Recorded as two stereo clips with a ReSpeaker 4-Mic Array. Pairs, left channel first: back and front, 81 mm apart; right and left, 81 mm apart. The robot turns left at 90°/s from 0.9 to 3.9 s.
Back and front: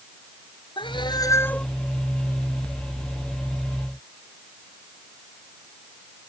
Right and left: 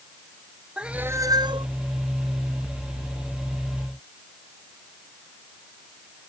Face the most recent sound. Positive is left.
turn(degrees=-100)